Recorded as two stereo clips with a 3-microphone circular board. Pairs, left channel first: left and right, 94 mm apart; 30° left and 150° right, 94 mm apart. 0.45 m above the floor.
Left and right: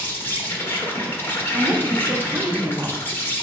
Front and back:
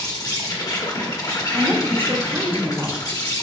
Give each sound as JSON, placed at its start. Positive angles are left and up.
{"t": 0.0, "sound": "an insect", "azimuth_deg": 35, "distance_m": 1.2}
{"t": 1.5, "sound": "a woman speaking", "azimuth_deg": -125, "distance_m": 1.0}